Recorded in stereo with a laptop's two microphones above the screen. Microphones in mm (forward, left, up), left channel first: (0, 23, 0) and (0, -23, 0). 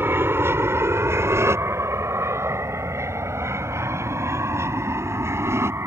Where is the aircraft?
55° right (ahead or behind); by 5.9 s 70° right (ahead or behind).